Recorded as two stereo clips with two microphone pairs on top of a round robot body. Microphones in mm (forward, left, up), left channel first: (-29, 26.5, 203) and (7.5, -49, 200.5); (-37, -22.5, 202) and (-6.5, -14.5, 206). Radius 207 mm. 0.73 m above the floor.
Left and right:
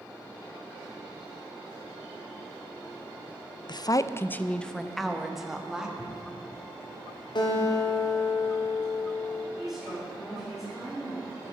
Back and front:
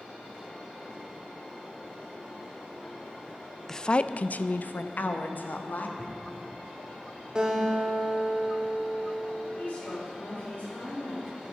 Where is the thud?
50° left, 2 m.